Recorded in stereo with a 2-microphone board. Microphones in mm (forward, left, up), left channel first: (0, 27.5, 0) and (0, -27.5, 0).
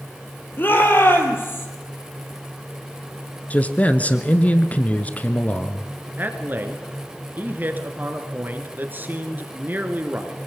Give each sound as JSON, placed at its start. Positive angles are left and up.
{"t": 0.6, "sound": "a shout", "side_deg": 40, "distance_m": 3.0}
{"t": 3.5, "sound": "a man speaking", "side_deg": 25, "distance_m": 1.1}
{"t": 6.2, "sound": "a man speaking", "side_deg": -35, "distance_m": 1.9}